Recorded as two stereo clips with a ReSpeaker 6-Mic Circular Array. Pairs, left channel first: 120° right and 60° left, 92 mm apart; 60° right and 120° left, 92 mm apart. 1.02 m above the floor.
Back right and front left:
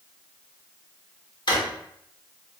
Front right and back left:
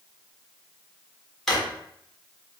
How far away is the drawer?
About 1.1 m.